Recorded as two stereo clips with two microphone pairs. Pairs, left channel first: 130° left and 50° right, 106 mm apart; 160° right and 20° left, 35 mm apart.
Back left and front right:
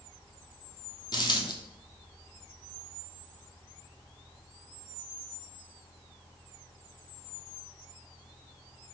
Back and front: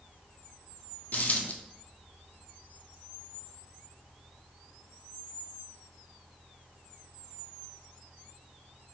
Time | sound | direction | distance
1.1 | a dropped coin | 170° left | 0.7 m